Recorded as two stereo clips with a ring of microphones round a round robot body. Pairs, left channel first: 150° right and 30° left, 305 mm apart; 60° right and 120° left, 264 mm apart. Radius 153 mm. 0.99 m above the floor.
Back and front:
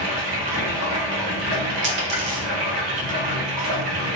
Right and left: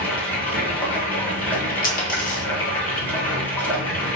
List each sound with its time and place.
0.0 s running water: 25° left, 1.2 m
1.8 s a dropped coin: 10° right, 0.8 m